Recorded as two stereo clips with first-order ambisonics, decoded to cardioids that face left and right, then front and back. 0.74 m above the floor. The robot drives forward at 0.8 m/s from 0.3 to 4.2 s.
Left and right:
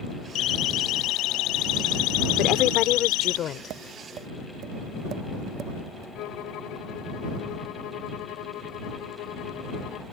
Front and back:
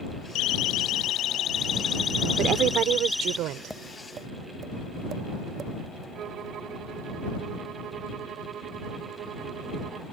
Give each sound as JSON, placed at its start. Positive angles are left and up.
{"t": 0.3, "sound": "a siren", "azimuth_deg": 40}
{"t": 2.4, "sound": "a woman speaking", "azimuth_deg": 130}
{"t": 3.7, "sound": "tapping", "azimuth_deg": -90}
{"t": 6.2, "sound": "a violin", "azimuth_deg": 125}